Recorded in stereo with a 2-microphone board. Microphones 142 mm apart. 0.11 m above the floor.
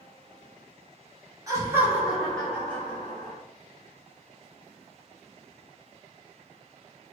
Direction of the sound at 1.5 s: 25° right (ahead or behind).